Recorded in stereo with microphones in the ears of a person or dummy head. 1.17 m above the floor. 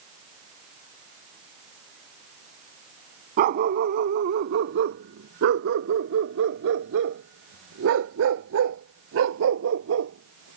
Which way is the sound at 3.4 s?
50° right (ahead or behind).